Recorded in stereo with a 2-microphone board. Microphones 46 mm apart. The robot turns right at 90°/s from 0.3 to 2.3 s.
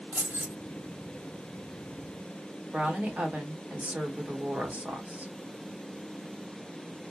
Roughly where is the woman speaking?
Right.